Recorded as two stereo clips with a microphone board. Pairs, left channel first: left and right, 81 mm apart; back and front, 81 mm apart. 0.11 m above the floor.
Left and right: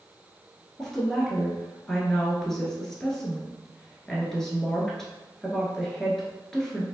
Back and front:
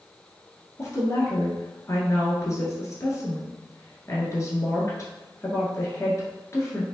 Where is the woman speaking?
170° left, 1.3 m.